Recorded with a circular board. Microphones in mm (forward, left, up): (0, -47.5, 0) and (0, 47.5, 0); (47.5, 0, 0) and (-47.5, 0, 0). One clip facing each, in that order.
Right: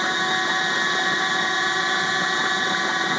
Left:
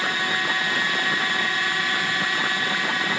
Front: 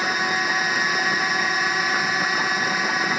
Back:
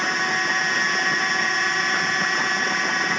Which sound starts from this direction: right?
A drone, at 0.0 s.